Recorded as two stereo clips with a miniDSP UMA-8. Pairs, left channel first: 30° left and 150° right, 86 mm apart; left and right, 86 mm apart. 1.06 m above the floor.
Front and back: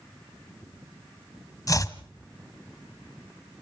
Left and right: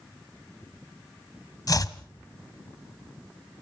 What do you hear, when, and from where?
1.7 s chopping: 65° left, 1.3 m